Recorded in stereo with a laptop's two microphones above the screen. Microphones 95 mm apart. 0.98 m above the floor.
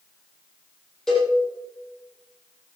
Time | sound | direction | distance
1.1 | a cowbell | 5° left (ahead or behind) | 5 m